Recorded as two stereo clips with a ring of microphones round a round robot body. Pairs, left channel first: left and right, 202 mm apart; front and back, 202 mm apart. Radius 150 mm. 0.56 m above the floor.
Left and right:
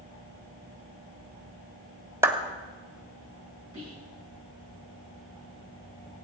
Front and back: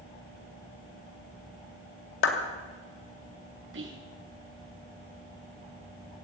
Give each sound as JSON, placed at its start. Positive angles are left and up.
{"t": 2.2, "sound": "a clap", "azimuth_deg": -10, "distance_m": 2.0}
{"t": 3.7, "sound": "whispering", "azimuth_deg": 160, "distance_m": 5.0}